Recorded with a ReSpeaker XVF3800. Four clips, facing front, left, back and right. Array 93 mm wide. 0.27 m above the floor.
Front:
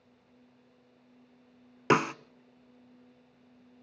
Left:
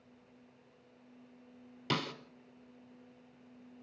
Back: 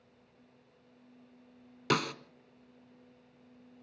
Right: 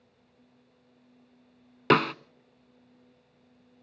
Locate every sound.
1.9 s a snare drum: 65° right, 0.6 m